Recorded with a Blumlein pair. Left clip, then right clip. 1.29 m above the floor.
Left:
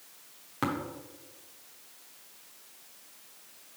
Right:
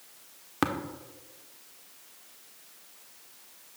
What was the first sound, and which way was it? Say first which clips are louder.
Tapping: right 3 dB; 20° right.